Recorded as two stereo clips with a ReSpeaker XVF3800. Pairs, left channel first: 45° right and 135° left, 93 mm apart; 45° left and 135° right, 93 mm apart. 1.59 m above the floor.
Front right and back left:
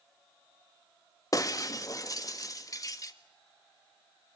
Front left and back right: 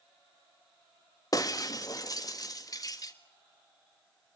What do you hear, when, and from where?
1.3 s breaking glass: straight ahead, 1.5 m